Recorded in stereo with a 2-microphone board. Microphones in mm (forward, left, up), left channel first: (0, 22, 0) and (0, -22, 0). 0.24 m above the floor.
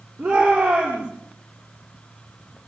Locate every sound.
0.2 s a shout: 35° right (ahead or behind), 9.5 m